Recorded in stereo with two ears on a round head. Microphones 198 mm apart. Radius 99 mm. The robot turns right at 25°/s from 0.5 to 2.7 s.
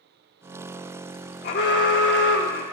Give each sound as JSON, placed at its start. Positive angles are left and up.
{"t": 1.4, "sound": "an alarm", "side_deg": 45, "distance_m": 1.0}